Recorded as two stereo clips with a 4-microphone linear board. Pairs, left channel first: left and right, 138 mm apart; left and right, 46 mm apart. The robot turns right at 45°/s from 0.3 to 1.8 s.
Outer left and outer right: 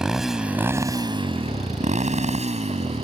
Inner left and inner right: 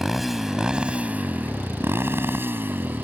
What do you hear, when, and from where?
0.0 s a motorcycle: 5° right (ahead or behind); by 3.1 s 50° right (ahead or behind)